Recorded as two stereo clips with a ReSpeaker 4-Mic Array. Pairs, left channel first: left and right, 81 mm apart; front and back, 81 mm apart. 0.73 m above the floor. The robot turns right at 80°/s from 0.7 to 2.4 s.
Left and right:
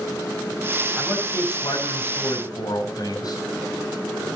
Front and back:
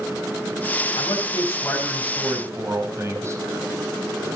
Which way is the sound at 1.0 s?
10° left.